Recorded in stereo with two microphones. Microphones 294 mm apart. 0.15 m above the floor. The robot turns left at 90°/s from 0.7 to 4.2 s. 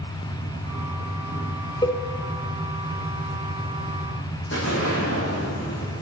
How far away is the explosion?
About 4.5 m.